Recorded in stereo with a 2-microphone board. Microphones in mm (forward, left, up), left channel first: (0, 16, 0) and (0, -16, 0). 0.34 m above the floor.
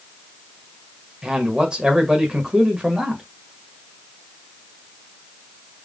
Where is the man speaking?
30° right (ahead or behind), 1.7 m.